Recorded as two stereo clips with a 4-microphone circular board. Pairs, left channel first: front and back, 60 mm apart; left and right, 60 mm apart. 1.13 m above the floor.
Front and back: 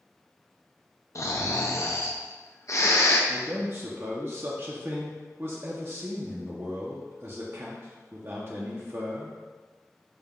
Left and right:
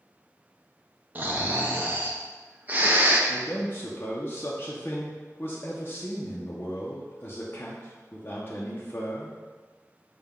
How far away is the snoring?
About 0.5 m.